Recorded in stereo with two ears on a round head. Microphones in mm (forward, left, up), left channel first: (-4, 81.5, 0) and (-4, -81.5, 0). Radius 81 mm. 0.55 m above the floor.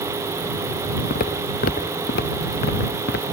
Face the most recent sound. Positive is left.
turn(degrees=55)  # may be behind; listen again after turning